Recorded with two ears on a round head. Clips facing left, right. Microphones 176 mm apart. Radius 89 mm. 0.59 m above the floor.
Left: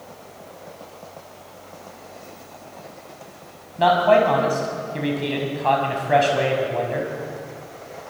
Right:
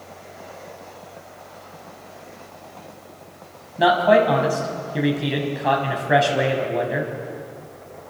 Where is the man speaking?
10° right (ahead or behind), 5 m.